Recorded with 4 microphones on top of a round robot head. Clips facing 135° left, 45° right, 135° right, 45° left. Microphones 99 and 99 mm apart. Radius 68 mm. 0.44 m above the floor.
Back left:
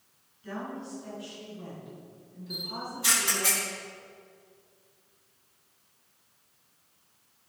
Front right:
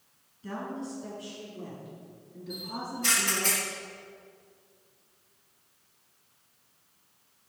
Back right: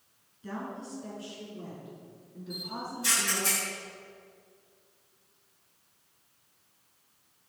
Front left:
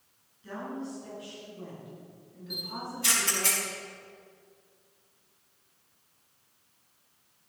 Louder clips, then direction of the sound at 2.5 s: Front right 1 dB, even; 55° left.